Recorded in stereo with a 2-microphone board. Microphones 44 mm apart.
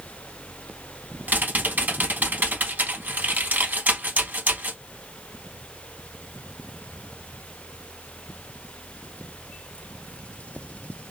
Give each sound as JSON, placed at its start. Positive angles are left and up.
{"t": 1.3, "sound": "typing on a keyboard", "side_deg": -45, "distance_m": 0.6}